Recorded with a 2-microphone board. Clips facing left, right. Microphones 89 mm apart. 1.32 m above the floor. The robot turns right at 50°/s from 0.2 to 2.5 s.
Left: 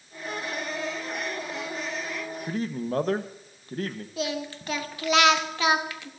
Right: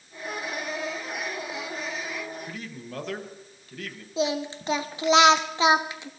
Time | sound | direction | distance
2.5 | a man speaking | 35° left (ahead or behind) | 1.1 m
4.2 | singing | 25° right (ahead or behind) | 1.0 m